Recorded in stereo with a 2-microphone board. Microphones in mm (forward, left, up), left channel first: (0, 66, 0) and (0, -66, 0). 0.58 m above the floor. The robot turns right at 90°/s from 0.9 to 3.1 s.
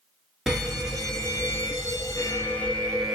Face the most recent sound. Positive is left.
turn(degrees=-5)  # may be behind; listen again after turning